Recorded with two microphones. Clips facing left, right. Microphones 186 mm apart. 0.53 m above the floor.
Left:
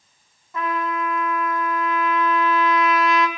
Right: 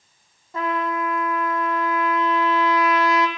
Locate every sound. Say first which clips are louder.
0.5 s a trumpet: right 1 dB; 35° right (ahead or behind), 1.0 m